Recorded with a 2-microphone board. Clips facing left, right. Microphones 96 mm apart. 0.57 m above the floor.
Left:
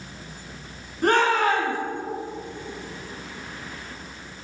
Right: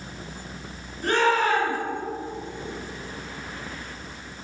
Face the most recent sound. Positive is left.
turn(degrees=55)  # may be behind; listen again after turning